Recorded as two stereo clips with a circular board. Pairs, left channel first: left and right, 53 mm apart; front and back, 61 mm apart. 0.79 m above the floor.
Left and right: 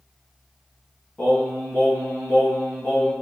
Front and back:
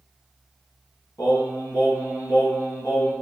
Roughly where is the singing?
Ahead left.